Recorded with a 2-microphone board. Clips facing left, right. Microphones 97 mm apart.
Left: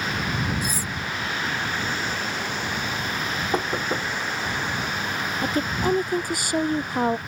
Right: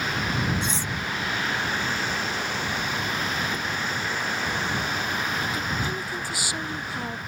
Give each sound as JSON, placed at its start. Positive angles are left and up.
{"t": 0.6, "sound": "cutlery clinking", "side_deg": -25}
{"t": 3.5, "sound": "knocking", "side_deg": 55}
{"t": 5.4, "sound": "a woman speaking", "side_deg": 50}